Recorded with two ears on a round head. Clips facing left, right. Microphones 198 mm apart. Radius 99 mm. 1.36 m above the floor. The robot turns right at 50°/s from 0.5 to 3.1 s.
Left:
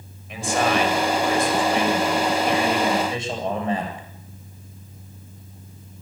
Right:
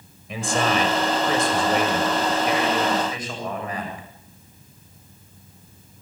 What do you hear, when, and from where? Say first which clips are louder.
0.3 s a man speaking: left 1 dB; 105° right, 8 m; by 4.1 s 25° left, 8 m